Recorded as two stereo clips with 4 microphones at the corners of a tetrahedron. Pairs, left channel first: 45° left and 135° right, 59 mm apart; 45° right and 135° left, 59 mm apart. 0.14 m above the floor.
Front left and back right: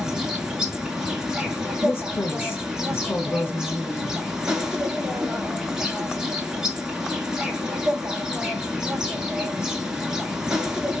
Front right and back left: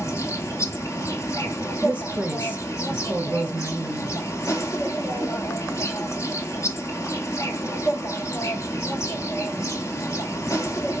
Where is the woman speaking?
75° left, 1.5 m.